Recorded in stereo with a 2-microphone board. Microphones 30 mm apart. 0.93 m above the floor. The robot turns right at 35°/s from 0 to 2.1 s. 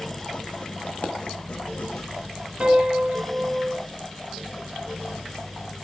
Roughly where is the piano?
Right.